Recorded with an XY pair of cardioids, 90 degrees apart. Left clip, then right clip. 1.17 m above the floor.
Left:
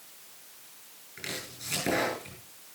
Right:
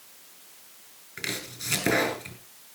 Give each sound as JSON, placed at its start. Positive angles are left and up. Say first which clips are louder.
{"t": 1.2, "sound": "chopping", "louder": "right 5 dB", "azimuth_deg": -55, "distance_m": 6.5}